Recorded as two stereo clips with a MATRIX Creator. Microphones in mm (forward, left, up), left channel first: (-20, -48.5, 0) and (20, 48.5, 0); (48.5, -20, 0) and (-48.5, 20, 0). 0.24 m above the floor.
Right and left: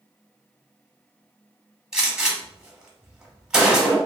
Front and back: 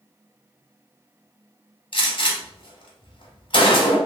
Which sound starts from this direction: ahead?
A gunshot, at 1.9 s.